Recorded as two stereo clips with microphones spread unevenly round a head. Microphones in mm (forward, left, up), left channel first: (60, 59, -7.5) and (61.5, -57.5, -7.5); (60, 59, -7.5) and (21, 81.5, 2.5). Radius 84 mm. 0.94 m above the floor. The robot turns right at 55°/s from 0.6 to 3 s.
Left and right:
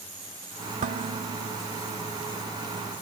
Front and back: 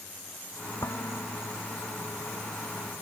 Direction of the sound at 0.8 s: 85° right.